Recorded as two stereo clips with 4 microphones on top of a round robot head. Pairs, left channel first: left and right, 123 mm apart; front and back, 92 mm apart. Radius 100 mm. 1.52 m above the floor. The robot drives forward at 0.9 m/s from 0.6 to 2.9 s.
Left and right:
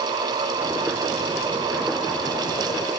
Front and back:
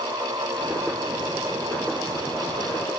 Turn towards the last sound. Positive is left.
No sound to turn to.